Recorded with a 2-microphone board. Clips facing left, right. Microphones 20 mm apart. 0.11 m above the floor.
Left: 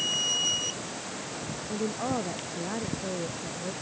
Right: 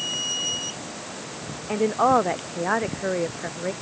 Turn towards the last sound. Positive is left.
turn(degrees=-50)  # may be behind; listen again after turning